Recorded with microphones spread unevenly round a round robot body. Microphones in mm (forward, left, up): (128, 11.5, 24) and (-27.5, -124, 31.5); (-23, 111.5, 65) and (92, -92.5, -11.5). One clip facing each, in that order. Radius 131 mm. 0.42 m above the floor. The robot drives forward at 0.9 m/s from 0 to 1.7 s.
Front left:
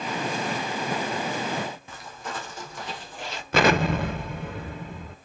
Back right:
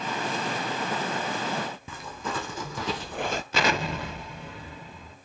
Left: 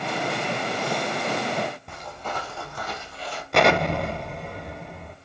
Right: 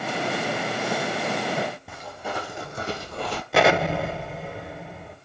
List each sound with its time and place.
1.9 s footsteps: 150° right, 2 m; by 3.4 s 90° right, 0.7 m
3.5 s an explosion: 15° left, 1.0 m